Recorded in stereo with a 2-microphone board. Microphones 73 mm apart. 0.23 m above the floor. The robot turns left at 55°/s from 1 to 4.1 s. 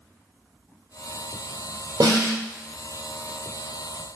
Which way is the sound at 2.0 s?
65° right (ahead or behind).